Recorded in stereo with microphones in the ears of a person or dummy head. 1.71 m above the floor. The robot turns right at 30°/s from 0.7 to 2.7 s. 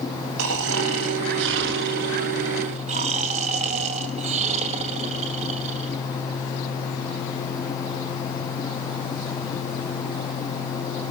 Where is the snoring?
100° right, 2 m; by 6.0 s 40° right, 2 m.